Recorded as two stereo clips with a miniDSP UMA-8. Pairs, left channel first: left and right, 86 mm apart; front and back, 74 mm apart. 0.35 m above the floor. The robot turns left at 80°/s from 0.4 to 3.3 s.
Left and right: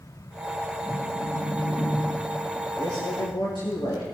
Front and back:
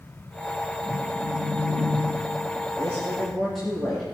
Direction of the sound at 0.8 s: 115° right.